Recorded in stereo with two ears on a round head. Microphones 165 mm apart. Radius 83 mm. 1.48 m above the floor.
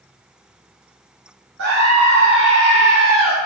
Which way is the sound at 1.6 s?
80° right.